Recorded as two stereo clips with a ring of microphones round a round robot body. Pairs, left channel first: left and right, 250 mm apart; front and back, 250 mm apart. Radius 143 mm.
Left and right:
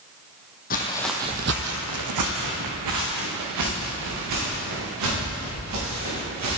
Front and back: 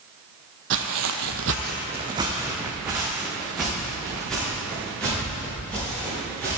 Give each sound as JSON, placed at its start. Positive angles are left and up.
{"t": 0.7, "sound": "footsteps", "azimuth_deg": 145, "distance_m": 1.2}